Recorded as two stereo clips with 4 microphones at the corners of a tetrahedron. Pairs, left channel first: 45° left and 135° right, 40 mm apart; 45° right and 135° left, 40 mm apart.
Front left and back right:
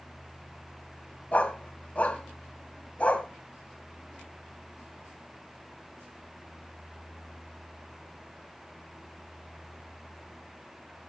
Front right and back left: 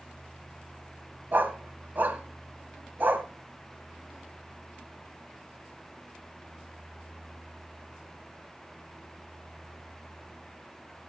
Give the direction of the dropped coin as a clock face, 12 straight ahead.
I don't hear a dropped coin.